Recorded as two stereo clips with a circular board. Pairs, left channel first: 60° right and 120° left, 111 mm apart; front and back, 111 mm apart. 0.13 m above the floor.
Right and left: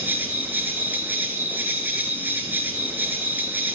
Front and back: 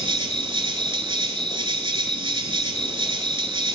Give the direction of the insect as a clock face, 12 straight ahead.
6 o'clock.